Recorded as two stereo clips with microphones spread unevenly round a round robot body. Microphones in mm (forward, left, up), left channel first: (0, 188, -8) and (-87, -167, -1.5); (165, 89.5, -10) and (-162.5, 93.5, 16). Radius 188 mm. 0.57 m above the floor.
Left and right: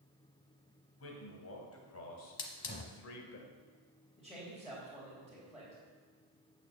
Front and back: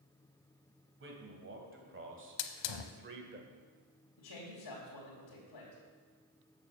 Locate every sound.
1.0 s a man speaking: 125° left, 3.5 m; by 3.4 s 120° left, 2 m
2.4 s a hiss: 5° left, 0.8 m
4.2 s a man speaking: 15° right, 3 m